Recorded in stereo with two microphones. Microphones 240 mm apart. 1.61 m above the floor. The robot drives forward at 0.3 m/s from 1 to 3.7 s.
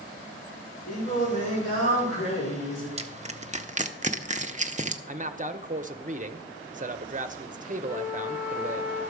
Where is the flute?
10° left (ahead or behind), 5 m.